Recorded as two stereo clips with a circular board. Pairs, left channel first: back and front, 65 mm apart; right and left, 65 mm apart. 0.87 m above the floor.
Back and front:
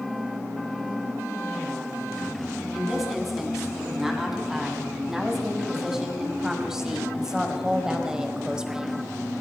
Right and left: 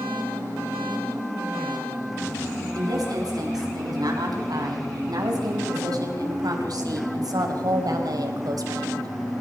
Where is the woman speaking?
85° left, 6.5 m; by 9.1 s 75° left, 3 m.